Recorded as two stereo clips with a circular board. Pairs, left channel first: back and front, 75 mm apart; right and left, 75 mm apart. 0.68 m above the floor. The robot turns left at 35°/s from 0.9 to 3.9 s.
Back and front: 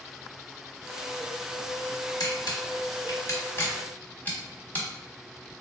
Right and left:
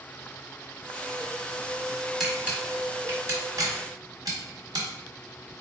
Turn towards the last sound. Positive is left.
turn(degrees=115)